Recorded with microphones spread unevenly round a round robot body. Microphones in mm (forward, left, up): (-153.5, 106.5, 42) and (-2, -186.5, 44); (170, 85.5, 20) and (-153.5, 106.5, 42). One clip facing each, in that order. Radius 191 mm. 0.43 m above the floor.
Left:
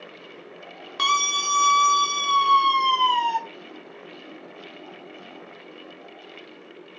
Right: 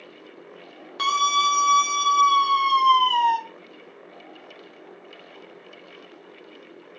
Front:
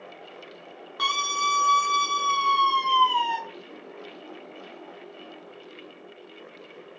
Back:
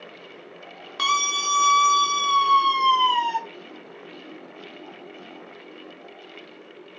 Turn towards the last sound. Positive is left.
turn(degrees=-145)